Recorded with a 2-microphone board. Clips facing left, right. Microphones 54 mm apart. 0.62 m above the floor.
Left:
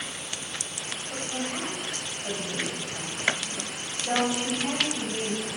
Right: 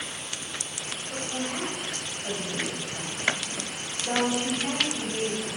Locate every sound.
1.1 s a woman speaking: 15° left (ahead or behind), 3 m